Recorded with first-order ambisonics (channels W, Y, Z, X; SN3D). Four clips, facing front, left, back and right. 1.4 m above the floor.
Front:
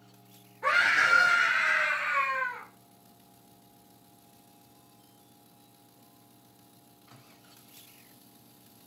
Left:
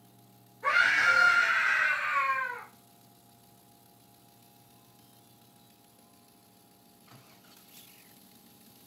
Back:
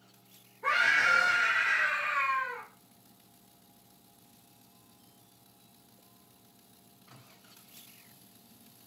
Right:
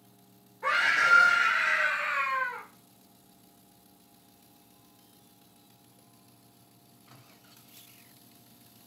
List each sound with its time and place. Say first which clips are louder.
0.6 s a scream: even, front 2 dB; 35° right, 2.5 m; by 2.6 s 85° right, 1.4 m